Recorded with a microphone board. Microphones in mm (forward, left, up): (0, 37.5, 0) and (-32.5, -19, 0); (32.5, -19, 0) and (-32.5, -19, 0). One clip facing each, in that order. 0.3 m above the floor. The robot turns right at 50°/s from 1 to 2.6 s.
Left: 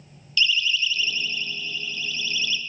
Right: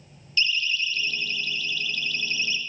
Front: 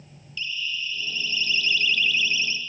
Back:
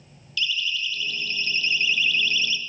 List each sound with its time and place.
0.4 s a siren: 175° right, 5 m; by 2.6 s 55° right, 3.5 m